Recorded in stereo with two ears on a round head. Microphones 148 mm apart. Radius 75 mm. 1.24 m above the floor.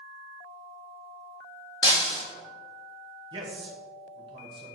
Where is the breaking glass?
30° left (ahead or behind), 2 m.